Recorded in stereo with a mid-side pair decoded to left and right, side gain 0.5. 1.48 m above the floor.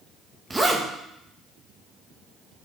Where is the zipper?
20° right, 1.7 m.